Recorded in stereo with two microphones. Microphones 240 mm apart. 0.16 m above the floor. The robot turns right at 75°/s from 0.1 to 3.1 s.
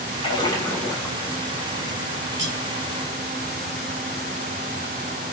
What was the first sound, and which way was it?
A splash, 25° left (ahead or behind).